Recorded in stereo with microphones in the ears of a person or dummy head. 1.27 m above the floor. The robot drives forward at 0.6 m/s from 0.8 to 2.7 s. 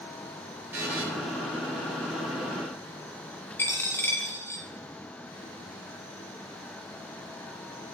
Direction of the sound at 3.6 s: 10° left (ahead or behind).